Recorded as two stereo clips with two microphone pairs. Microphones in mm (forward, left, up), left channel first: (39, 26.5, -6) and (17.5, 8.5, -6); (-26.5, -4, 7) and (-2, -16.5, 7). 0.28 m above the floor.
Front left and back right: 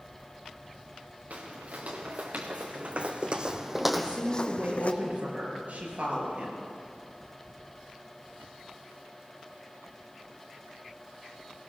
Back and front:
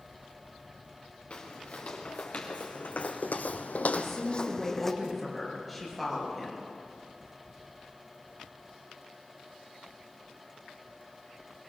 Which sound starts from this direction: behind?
Footsteps, at 1.3 s.